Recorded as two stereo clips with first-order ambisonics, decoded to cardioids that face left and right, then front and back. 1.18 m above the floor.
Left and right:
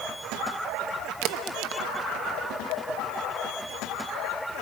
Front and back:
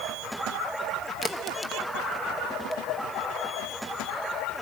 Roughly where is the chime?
I don't hear a chime.